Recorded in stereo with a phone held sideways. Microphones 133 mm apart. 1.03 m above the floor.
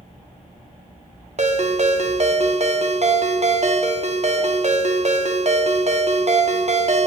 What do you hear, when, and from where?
1.4 s a ringtone: 60° right (ahead or behind), 0.8 m